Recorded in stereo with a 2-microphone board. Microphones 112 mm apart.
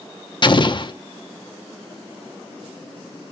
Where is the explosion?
45° left (ahead or behind), 0.8 m.